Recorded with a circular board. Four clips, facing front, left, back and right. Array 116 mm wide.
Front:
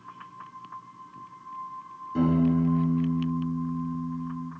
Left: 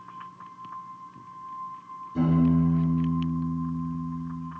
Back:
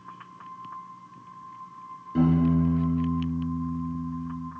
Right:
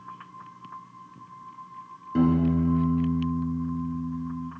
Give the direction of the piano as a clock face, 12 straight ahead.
3 o'clock.